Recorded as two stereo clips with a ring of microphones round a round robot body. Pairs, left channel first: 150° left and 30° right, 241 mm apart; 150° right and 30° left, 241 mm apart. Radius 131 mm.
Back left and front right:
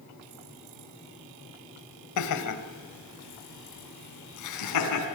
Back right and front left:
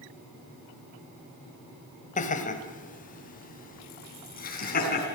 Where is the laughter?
150° left, 3.5 m; by 5.0 s 155° left, 7 m.